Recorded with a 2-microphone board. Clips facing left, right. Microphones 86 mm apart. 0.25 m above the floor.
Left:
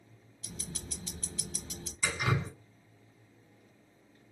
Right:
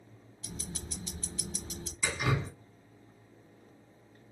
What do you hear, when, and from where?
0.4 s ticking: 25° right (ahead or behind), 0.6 m
2.0 s dripping: centre (ahead or behind), 1.8 m